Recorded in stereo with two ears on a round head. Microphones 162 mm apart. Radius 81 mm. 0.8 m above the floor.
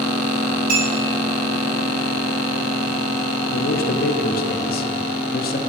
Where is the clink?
50° right (ahead or behind), 3 m.